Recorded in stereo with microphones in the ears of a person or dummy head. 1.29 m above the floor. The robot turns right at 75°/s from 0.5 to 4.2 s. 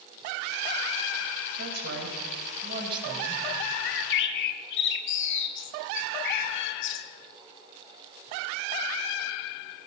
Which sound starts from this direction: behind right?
A woman speaking, at 1.6 s.